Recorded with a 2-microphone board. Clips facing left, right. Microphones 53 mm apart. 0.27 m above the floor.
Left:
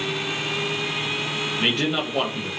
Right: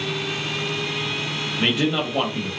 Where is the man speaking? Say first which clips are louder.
Right 3 dB; 5° right (ahead or behind), 0.9 m.